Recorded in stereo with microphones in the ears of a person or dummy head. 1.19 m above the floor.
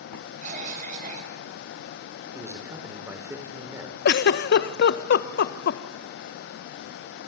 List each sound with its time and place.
0.4 s a cough: 45° right (ahead or behind), 5 m
2.3 s a man speaking: 10° right (ahead or behind), 3 m
4.0 s a giggle: 60° left (ahead or behind), 0.8 m